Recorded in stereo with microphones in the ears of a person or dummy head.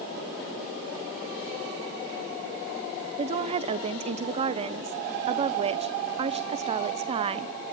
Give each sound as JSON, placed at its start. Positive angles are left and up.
{"t": 3.2, "sound": "a woman speaking", "side_deg": -35, "distance_m": 0.9}